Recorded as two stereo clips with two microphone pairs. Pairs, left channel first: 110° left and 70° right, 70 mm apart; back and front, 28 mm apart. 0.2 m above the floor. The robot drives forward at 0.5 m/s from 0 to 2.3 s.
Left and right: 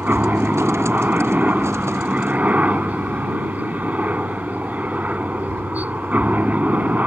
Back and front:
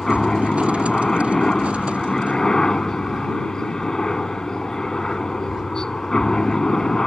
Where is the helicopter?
120° right; by 7.1 s 125° right.